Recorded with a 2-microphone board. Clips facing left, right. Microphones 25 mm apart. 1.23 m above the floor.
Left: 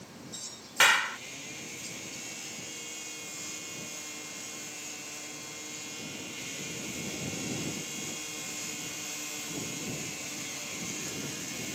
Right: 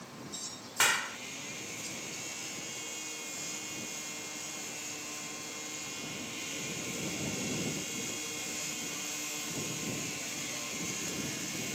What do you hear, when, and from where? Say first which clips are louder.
0.8 s a clap: left 6 dB; 25° left (ahead or behind)